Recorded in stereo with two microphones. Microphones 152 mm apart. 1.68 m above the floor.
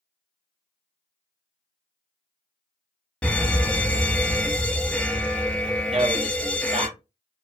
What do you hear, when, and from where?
3.2 s a fire alarm: 5° left (ahead or behind), 0.5 m
5.9 s a man speaking: 40° right (ahead or behind), 0.8 m